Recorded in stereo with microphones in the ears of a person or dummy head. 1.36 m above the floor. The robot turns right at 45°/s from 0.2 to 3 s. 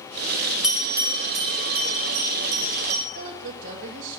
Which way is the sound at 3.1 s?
80° right.